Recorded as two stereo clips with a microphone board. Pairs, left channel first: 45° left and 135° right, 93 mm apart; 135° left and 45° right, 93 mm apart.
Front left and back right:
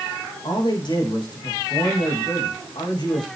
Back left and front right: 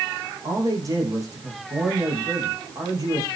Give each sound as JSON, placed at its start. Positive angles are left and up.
{"t": 0.4, "sound": "a man speaking", "azimuth_deg": 10, "distance_m": 9.0}